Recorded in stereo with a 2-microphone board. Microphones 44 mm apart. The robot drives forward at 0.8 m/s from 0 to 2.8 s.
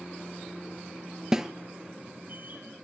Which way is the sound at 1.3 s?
10° right (ahead or behind).